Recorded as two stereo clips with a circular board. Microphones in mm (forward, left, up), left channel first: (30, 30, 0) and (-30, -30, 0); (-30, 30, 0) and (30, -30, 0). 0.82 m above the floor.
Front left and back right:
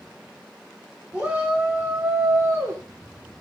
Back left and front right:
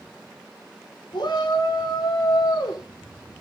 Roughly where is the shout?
Behind left.